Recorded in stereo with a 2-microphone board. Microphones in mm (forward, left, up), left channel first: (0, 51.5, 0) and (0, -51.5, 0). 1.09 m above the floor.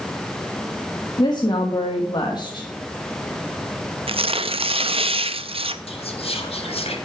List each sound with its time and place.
1.2 s a woman speaking: 45° left (ahead or behind), 1.3 m
4.1 s tearing paper: 65° right (ahead or behind), 0.6 m
5.9 s whispering: 70° left (ahead or behind), 2 m